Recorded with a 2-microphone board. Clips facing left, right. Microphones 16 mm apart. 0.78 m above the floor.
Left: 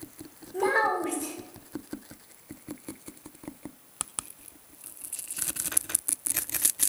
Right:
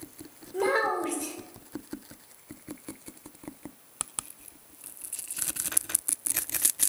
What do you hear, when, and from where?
0.5 s a child speaking: 50° right (ahead or behind), 2.5 m